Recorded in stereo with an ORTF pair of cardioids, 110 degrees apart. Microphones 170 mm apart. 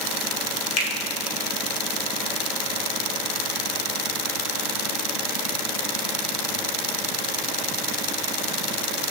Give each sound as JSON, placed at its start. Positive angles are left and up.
{"t": 0.8, "sound": "a finger snap", "azimuth_deg": 50, "distance_m": 2.5}